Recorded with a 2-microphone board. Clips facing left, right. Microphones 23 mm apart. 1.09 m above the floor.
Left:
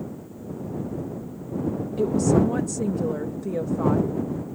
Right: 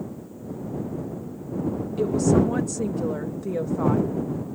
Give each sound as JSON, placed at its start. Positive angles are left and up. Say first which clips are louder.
{"t": 2.0, "sound": "a woman speaking", "louder": "even", "side_deg": 0}